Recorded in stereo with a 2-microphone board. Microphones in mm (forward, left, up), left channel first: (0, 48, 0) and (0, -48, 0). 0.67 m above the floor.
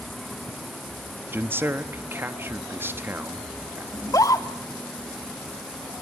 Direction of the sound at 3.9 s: 35° left (ahead or behind).